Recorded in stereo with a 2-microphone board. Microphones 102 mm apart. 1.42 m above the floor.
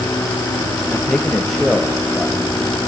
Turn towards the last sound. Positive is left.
turn(degrees=-5)  # may be behind; listen again after turning